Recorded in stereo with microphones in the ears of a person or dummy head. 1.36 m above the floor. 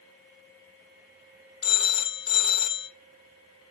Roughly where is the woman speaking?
I don't hear a woman speaking.